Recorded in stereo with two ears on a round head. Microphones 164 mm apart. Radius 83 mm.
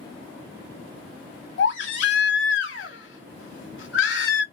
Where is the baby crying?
75° left (ahead or behind), 1.0 m.